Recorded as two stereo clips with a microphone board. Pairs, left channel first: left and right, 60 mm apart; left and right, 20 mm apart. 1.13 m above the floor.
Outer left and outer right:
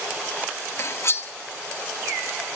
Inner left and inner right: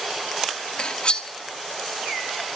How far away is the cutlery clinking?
About 0.8 m.